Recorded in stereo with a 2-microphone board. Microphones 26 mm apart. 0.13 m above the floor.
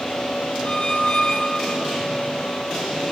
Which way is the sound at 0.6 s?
40° left (ahead or behind).